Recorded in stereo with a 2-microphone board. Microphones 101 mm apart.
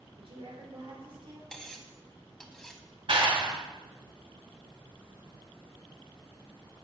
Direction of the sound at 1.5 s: 5° left (ahead or behind).